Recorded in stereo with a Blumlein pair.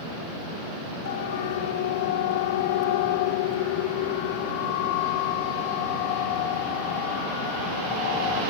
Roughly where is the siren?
Ahead left.